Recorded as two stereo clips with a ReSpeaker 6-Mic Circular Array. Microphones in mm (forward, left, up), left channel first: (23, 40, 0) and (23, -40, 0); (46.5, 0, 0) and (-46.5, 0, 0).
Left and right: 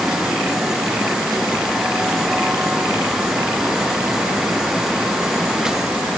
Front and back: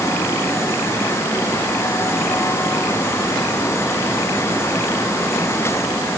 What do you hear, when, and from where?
Only background noise.